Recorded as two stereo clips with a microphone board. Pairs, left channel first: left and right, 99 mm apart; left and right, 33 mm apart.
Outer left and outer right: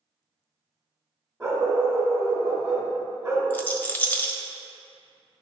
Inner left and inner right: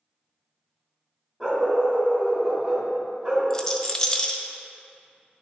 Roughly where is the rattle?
Centre.